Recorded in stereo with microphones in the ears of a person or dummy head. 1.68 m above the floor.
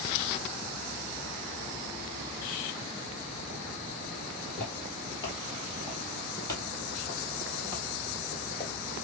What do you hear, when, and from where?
4.5 s footsteps: 10° left (ahead or behind), 1.7 m; by 8.7 s 20° left (ahead or behind), 3.5 m